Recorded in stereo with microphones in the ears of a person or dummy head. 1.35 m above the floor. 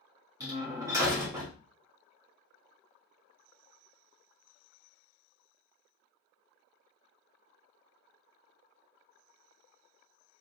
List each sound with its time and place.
0.4 s a door slam: 20° right (ahead or behind), 1.2 m